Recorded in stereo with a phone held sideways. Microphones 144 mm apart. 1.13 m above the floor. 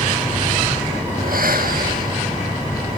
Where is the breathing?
90° right, 1.6 m.